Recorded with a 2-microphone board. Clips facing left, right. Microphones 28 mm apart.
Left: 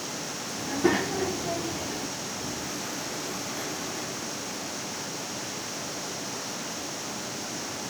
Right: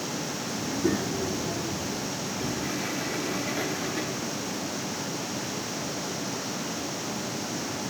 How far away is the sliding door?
About 5 m.